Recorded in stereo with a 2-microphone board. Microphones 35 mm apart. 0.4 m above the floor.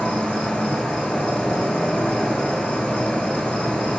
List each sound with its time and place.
0.0 s an insect: 30° left (ahead or behind), 1.5 m